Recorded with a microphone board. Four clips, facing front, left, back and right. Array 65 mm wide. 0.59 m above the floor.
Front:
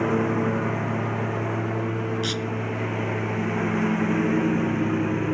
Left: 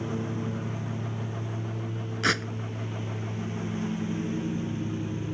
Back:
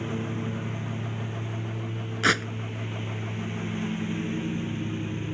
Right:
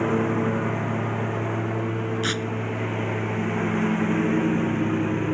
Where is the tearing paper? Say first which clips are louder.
Even, back 4 dB; 160° left.